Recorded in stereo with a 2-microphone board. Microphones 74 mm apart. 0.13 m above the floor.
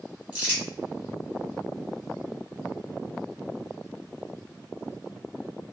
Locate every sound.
0.3 s crumpling: 25° right (ahead or behind), 1.8 m